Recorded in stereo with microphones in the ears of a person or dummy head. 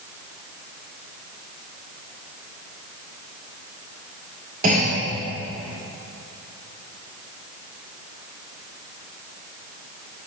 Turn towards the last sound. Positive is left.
turn(degrees=-50)  # may be behind; listen again after turning